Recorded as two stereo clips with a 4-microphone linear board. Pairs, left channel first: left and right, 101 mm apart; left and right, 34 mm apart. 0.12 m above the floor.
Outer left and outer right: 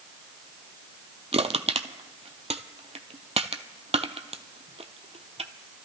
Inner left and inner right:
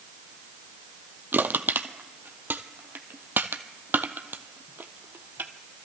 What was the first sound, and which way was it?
Crushing, 80° right.